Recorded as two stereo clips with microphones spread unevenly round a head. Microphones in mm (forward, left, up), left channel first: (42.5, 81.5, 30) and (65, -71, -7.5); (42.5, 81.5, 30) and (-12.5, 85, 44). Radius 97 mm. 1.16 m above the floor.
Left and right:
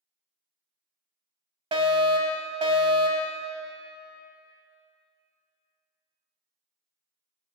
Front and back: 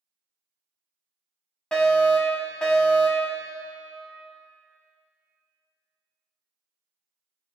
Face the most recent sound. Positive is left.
turn(degrees=-60)